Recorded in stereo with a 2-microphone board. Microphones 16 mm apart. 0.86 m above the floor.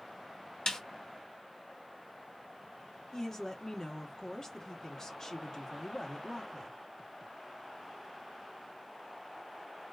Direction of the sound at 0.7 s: 45° left (ahead or behind).